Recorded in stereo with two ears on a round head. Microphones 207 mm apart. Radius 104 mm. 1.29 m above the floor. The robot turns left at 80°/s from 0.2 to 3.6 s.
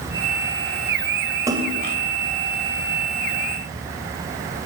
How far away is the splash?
About 2.5 m.